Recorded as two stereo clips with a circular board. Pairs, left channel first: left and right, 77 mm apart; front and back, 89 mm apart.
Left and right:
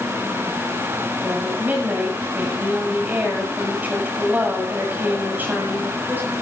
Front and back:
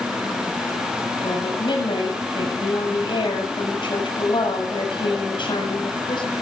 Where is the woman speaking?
25° right, 8 m.